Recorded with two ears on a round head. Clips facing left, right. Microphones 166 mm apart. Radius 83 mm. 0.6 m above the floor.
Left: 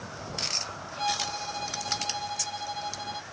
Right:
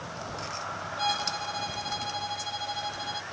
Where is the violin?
5° right (ahead or behind).